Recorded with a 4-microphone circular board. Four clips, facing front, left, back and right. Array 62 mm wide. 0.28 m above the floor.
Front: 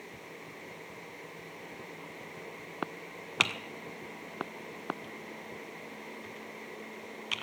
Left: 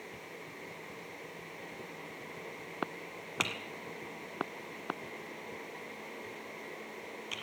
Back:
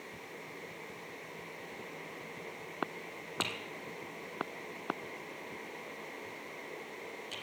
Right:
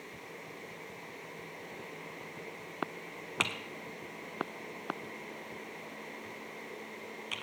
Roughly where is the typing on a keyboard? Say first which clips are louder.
Right 2 dB, front 7 dB; ahead.